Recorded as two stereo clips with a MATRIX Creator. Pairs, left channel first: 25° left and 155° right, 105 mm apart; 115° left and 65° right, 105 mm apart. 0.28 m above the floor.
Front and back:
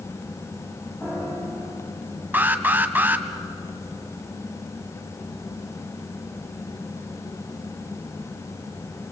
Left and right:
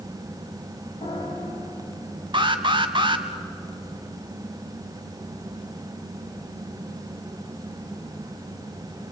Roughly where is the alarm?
Right.